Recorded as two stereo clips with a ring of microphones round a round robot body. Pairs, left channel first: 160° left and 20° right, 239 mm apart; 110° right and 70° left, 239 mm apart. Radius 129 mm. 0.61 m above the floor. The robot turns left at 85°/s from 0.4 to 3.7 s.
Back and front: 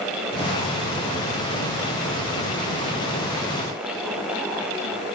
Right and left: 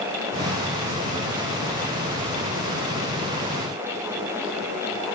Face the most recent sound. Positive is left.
No sound to turn to.